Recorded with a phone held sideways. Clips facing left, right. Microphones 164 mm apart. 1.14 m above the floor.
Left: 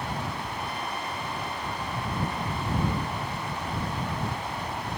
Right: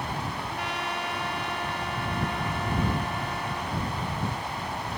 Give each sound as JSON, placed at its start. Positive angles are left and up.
{"t": 0.4, "sound": "a trumpet", "side_deg": -85}